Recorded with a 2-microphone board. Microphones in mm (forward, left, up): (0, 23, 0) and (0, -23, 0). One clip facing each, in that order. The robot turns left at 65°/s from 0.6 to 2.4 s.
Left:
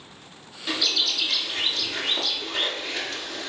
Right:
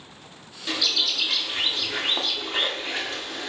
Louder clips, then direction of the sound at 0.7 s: Even; 10° left (ahead or behind).